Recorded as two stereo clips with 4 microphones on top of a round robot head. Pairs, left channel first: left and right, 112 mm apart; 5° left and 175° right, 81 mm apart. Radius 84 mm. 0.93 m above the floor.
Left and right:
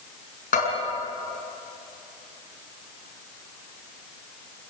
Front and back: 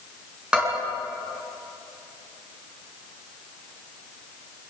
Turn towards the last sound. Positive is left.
turn(degrees=105)